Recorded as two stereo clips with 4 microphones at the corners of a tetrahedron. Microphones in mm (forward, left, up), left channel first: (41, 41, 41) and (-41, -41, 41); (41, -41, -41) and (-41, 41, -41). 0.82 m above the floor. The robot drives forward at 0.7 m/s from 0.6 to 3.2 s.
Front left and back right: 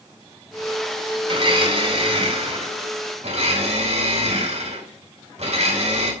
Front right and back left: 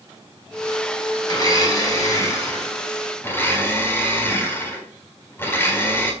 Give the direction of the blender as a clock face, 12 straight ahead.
3 o'clock.